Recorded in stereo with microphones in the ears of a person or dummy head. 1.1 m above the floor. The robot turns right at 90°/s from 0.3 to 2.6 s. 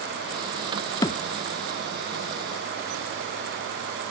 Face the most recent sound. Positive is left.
turn(degrees=160)